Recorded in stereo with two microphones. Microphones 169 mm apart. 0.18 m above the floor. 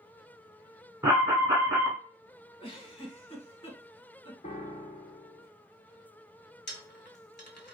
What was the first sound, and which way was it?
An alarm, 20° right (ahead or behind).